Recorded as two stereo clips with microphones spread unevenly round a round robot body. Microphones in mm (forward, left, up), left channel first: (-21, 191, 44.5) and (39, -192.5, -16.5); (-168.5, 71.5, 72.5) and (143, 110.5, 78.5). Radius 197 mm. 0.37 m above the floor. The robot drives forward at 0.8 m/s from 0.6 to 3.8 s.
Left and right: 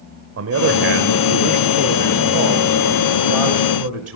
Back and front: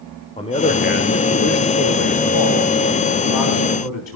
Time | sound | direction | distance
0.4 | a man speaking | 110° right | 1.1 m